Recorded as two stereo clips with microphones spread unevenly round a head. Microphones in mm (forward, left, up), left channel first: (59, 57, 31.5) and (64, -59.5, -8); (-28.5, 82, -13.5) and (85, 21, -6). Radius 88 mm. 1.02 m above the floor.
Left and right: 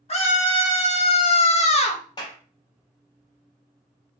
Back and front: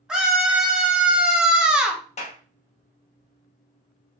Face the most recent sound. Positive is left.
turn(degrees=165)